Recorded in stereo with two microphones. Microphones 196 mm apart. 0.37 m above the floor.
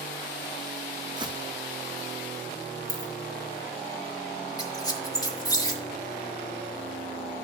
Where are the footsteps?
20° right (ahead or behind), 0.7 m.